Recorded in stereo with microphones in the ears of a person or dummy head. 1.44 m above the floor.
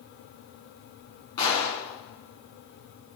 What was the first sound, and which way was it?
A gunshot, 20° left (ahead or behind).